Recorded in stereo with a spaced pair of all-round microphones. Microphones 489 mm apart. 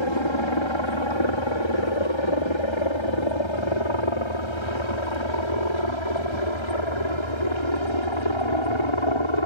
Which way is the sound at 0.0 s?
65° left (ahead or behind).